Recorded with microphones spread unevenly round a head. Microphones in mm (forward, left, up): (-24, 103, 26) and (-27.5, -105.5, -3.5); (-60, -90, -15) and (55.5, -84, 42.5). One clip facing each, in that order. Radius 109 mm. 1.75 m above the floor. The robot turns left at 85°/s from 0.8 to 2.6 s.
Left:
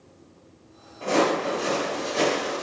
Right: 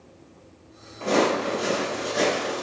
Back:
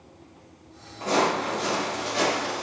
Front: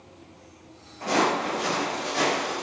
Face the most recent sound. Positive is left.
turn(degrees=-165)